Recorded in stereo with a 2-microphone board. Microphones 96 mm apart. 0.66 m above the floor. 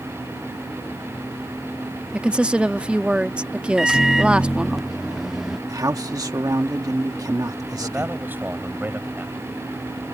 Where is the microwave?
5° right (ahead or behind).